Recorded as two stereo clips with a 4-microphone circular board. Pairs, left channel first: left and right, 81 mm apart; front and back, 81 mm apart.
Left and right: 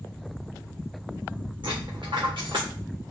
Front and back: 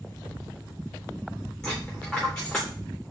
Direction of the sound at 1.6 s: 85° right.